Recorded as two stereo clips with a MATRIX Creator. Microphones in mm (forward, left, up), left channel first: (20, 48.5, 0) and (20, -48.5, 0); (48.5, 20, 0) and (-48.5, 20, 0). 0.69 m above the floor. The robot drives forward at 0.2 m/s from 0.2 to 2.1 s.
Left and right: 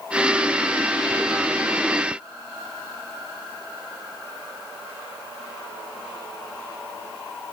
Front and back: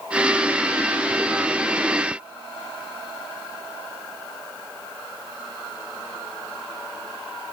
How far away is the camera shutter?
I don't hear a camera shutter.